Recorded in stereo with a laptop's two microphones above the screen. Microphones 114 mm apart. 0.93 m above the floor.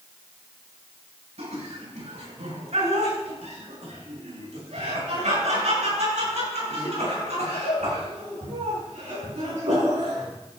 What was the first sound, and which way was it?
Laughter, 75° right (ahead or behind).